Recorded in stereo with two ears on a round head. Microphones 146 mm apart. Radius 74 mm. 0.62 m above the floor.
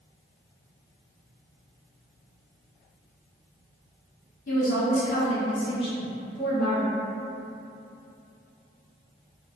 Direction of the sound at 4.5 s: 55° left (ahead or behind).